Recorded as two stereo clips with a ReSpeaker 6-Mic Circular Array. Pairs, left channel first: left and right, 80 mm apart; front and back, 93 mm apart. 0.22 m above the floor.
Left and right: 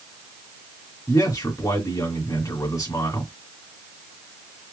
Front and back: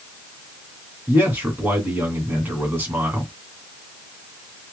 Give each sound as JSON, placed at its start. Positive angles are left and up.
{"t": 1.1, "sound": "a man speaking", "azimuth_deg": 120, "distance_m": 2.5}